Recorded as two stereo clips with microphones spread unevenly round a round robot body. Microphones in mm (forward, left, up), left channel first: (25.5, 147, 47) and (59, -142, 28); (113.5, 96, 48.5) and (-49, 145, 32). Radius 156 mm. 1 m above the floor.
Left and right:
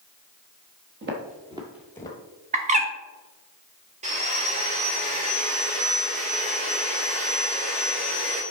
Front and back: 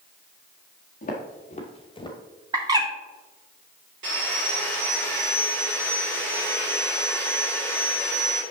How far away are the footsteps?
About 1.5 m.